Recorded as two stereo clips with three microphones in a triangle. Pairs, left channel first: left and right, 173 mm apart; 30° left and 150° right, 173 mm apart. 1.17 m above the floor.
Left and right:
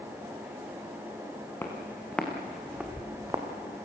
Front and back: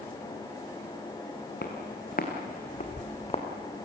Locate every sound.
1.6 s footsteps: 15° left, 3.5 m; by 3.5 s 25° right, 2.5 m